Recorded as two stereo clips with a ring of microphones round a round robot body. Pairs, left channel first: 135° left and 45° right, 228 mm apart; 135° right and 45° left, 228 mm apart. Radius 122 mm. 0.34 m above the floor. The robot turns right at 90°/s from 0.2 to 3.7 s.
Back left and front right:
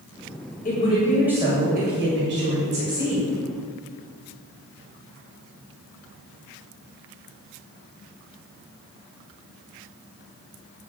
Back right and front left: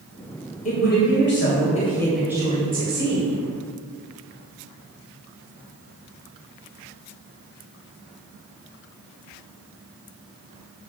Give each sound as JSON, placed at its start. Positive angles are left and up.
{"t": 0.7, "sound": "a woman speaking", "azimuth_deg": 180, "distance_m": 2.0}